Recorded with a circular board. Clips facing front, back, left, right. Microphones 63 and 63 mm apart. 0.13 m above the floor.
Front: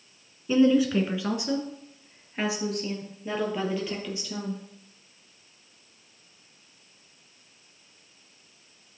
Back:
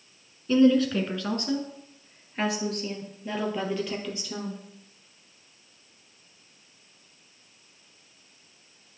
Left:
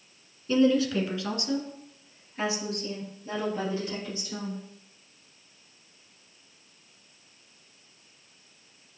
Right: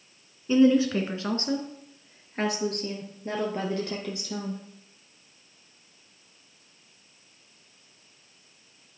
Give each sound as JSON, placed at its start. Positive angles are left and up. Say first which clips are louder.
{"t": 0.5, "sound": "a woman speaking", "louder": "back 1 dB, right 3 dB", "azimuth_deg": -55, "distance_m": 1.1}